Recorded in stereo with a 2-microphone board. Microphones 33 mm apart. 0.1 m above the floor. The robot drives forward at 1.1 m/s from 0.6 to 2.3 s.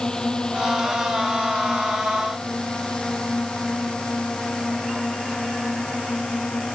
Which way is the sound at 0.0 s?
20° left (ahead or behind).